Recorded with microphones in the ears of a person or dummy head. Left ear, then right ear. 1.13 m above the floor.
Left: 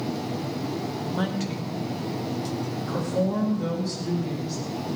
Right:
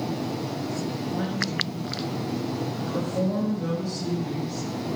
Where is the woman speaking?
35° left (ahead or behind), 2 m; by 4.6 s centre (ahead or behind), 7 m.